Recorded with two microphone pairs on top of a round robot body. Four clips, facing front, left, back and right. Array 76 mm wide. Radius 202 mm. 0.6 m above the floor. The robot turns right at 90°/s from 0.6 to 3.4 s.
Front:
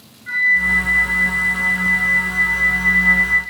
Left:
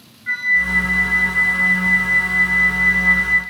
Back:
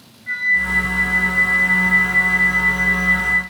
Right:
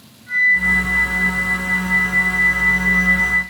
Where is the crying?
I don't hear crying.